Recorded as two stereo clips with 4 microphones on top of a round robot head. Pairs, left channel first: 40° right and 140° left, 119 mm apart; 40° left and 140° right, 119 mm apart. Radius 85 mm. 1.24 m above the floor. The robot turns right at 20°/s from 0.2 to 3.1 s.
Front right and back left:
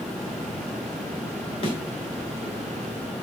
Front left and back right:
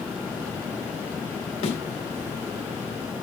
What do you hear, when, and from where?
1.6 s a thud: straight ahead, 3 m; by 1.8 s 5° left, 3 m